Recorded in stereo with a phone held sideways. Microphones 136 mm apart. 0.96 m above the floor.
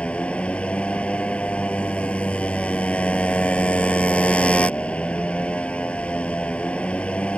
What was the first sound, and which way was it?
A motorcycle, 10° left (ahead or behind).